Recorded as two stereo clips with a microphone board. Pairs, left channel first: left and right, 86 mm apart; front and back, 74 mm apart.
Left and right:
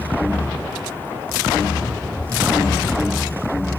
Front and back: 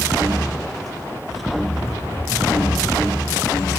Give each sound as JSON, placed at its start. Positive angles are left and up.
{"t": 1.8, "sound": "running footsteps", "azimuth_deg": -55, "distance_m": 4.0}